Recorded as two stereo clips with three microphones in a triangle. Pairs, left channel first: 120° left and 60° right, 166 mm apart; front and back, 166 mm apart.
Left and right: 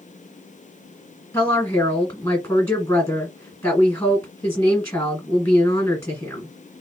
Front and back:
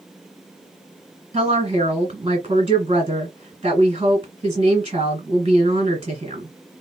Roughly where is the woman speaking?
Behind.